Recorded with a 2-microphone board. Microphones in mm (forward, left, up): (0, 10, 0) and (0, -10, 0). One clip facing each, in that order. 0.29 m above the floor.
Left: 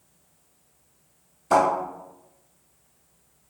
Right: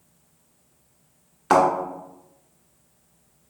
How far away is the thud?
About 1.6 m.